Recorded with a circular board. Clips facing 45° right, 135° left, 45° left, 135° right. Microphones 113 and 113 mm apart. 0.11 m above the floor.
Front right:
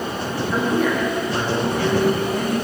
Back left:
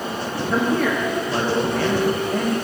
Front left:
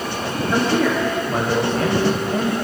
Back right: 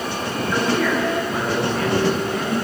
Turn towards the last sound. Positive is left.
turn(degrees=105)